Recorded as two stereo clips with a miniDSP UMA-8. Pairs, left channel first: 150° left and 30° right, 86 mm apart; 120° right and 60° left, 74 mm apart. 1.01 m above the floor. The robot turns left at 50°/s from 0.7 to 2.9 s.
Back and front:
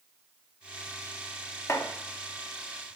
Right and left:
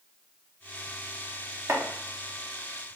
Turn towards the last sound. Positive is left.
turn(degrees=40)